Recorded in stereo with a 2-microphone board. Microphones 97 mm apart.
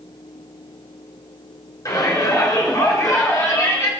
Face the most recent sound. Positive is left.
turn(degrees=30)  # may be behind; listen again after turning